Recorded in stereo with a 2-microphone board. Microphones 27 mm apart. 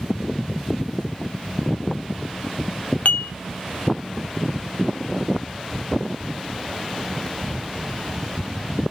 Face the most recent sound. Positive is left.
turn(degrees=65)  # may be behind; listen again after turning